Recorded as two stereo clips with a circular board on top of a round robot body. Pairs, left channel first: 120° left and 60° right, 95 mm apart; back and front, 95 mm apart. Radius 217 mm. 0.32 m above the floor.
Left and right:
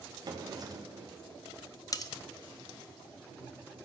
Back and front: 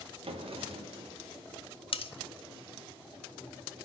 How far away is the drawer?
About 1.1 m.